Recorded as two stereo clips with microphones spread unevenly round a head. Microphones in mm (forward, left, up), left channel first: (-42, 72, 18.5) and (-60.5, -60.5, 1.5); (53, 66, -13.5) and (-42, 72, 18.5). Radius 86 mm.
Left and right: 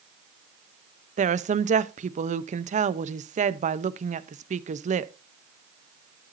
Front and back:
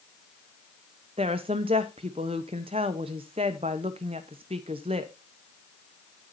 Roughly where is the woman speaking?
Behind right.